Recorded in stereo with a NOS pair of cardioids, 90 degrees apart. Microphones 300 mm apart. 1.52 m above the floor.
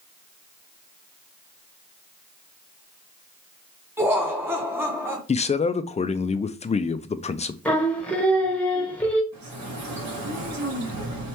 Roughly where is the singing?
Ahead.